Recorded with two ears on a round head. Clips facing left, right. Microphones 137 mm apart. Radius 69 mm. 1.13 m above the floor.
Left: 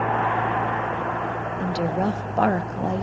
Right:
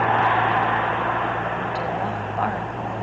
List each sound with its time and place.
1.6 s a woman speaking: 45° left (ahead or behind), 1.1 m